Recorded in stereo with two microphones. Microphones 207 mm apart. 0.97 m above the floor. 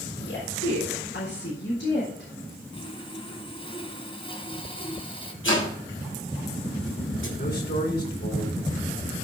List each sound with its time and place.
0.2 s a woman speaking: 75° left (ahead or behind), 4 m
2.7 s sawing: 25° left (ahead or behind), 1.8 m
5.4 s chopping: 80° left, 5.5 m
7.4 s a man speaking: 55° left (ahead or behind), 3.5 m